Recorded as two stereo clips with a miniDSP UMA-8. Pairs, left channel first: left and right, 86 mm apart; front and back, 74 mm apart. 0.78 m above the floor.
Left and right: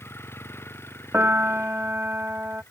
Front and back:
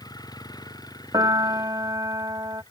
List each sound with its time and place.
0.0 s a vehicle: 30° left
1.1 s a piano: 155° right